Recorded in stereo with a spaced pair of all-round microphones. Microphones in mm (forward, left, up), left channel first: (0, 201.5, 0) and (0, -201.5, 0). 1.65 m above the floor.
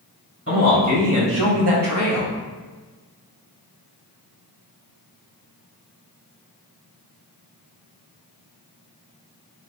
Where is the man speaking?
35° right (ahead or behind), 1.8 m; by 2.3 s 20° right (ahead or behind), 1.1 m.